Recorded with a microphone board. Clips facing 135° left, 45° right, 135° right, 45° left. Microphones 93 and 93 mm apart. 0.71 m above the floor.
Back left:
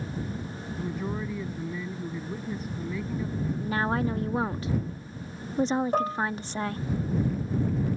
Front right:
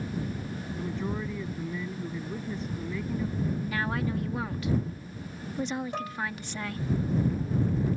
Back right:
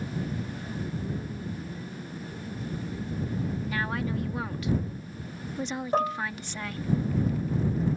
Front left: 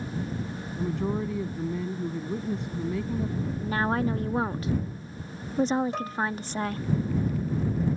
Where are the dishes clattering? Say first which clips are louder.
Back left 8 dB, back right 5 dB; straight behind.